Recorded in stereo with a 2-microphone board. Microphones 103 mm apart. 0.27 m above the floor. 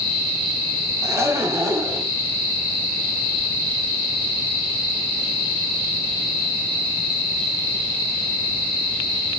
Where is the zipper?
30° right (ahead or behind), 2.0 m.